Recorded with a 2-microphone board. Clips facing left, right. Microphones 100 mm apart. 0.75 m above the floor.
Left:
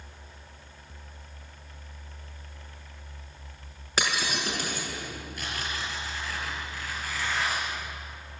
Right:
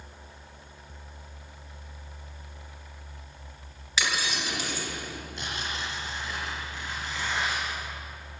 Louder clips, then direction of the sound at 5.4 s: Even; 20° right (ahead or behind).